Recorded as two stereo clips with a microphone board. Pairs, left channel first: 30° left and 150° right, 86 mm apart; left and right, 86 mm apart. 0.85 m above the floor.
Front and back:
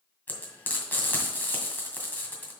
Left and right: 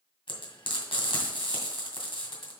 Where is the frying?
100° left, 2 m.